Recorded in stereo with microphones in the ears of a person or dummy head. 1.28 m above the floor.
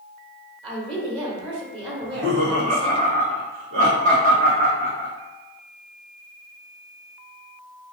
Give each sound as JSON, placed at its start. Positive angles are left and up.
{"t": 0.6, "sound": "a woman speaking", "side_deg": -25, "distance_m": 1.1}
{"t": 2.0, "sound": "laughter", "side_deg": -55, "distance_m": 1.6}